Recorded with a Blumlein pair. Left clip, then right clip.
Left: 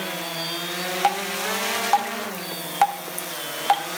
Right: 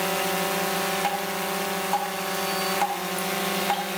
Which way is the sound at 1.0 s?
20° left.